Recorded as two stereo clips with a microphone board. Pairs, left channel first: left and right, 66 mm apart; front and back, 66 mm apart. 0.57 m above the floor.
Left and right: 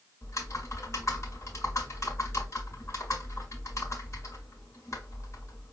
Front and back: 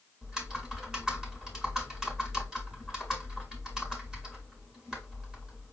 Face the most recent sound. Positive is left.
turn(degrees=100)